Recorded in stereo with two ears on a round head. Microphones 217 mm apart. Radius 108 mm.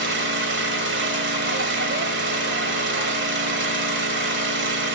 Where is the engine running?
45° right (ahead or behind), 1.8 m.